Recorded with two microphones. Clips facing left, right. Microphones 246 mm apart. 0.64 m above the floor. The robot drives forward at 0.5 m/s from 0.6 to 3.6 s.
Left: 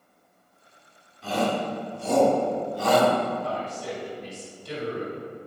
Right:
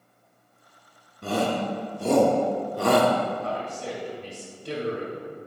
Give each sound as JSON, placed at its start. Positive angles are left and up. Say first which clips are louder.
{"t": 1.2, "sound": "a shout", "louder": "right 1 dB", "side_deg": -55, "distance_m": 1.2}
{"t": 3.4, "sound": "a man speaking", "louder": "even", "side_deg": -65, "distance_m": 3.0}